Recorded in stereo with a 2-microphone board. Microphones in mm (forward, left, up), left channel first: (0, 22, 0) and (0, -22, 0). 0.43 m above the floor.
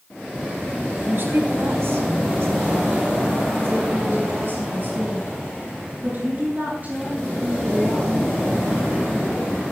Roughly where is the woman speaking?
Right.